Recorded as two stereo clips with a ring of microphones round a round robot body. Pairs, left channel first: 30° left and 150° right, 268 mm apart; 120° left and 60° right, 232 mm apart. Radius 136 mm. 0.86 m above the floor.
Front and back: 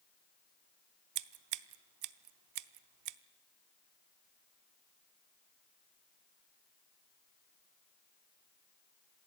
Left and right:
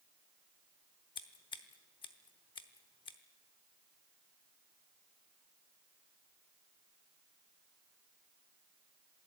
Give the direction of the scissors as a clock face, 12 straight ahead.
6 o'clock.